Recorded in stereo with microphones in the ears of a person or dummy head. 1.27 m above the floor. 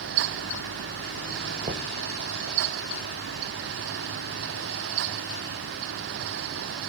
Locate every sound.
1.6 s knocking: 30° right (ahead or behind), 1.1 m